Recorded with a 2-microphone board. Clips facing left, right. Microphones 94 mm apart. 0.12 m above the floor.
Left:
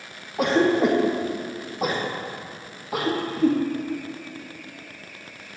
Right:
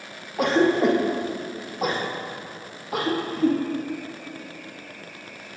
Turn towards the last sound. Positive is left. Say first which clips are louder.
# even
turn(degrees=0)  # may be behind; listen again after turning